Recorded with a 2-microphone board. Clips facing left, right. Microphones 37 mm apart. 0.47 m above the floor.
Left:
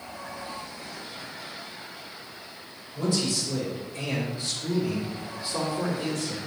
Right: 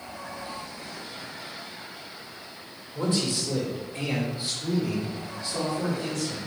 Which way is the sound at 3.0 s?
45° right (ahead or behind).